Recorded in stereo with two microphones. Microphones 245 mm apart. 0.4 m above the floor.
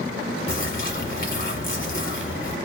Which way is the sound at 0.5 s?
40° left (ahead or behind).